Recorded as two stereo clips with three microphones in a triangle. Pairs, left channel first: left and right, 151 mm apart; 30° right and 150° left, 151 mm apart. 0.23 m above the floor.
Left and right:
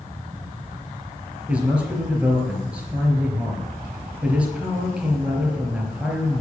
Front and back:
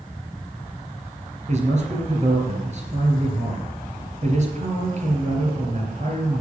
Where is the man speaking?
170° right, 3.5 m.